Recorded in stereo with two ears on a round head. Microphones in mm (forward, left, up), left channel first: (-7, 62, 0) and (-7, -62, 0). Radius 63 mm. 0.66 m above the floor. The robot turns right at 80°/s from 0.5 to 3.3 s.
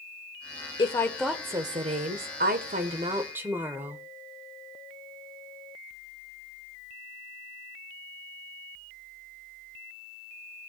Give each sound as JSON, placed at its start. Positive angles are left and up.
{"t": 0.8, "sound": "a woman speaking", "azimuth_deg": 145, "distance_m": 2.0}